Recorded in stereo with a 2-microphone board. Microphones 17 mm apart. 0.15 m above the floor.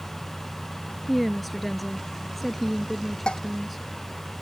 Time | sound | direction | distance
1.1 | a woman speaking | 5° left (ahead or behind) | ?
3.3 | dishes clattering | 60° left (ahead or behind) | ?